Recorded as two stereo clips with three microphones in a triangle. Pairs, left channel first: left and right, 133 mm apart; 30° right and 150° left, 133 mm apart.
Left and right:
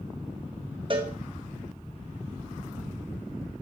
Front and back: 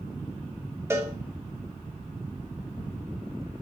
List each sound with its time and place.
0.9 s a cowbell: 140° right, 1.1 m